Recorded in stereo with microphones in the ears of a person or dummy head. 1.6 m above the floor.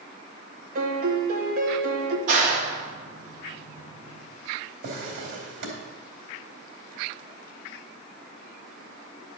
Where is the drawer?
60° right (ahead or behind), 2.5 m.